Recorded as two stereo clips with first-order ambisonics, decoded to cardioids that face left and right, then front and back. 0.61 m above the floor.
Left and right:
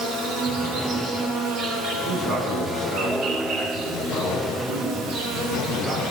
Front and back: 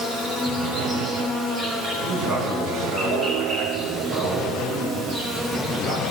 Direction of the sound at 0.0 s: 130° right.